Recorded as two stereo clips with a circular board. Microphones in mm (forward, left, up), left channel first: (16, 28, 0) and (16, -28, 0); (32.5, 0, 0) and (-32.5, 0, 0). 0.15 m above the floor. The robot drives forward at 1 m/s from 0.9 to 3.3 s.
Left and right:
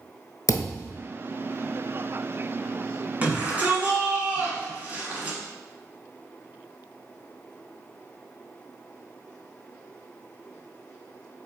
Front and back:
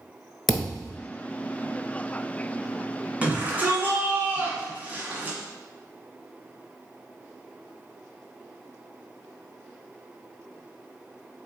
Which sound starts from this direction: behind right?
A shout, at 3.2 s.